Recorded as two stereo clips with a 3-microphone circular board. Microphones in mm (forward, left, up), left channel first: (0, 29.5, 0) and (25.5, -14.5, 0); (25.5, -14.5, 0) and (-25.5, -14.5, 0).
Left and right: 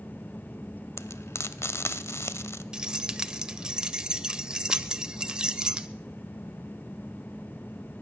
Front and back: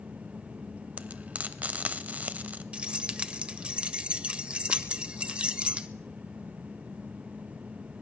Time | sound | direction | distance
1.0 | frying | 125° left | 0.6 m
2.7 | keys jangling | 120° right | 0.7 m